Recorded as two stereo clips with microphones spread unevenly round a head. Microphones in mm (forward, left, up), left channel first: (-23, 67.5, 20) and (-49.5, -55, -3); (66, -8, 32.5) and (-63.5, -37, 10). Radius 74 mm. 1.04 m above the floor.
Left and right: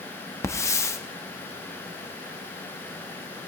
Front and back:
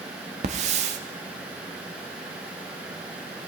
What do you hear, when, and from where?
0.4 s a hiss: 145° left, 0.8 m